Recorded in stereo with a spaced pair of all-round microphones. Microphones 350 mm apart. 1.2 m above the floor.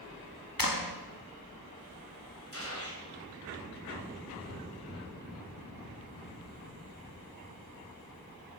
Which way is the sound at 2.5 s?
40° left (ahead or behind).